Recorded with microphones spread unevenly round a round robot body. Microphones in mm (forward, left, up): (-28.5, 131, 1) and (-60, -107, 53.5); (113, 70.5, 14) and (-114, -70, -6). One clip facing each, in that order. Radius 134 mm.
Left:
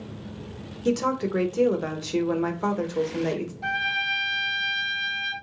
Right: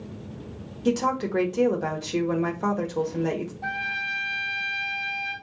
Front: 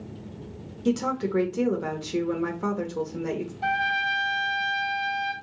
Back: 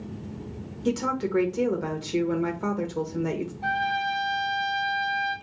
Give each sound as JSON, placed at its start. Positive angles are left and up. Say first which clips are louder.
{"t": 0.8, "sound": "a woman speaking", "louder": "even, front 1 dB", "azimuth_deg": 125, "distance_m": 0.8}
{"t": 3.6, "sound": "a trumpet", "louder": "left 2 dB, back 1 dB", "azimuth_deg": 25, "distance_m": 1.5}